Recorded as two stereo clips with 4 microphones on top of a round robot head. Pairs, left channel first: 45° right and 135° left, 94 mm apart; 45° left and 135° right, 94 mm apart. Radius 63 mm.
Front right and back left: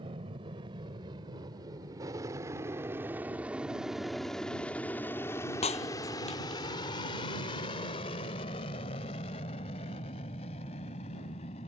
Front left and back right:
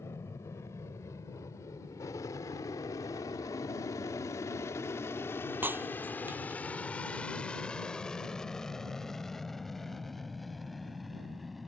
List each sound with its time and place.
0.0 s an aircraft: 105° left; by 11.7 s 45° right
5.6 s breaking glass: 65° right